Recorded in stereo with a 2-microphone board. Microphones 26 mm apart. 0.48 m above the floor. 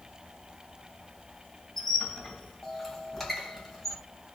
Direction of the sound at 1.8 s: 15° left (ahead or behind).